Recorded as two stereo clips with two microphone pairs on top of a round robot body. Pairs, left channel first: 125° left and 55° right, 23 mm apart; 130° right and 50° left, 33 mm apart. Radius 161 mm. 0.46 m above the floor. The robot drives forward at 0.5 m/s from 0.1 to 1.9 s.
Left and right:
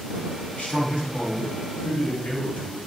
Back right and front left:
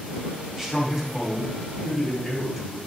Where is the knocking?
I don't hear knocking.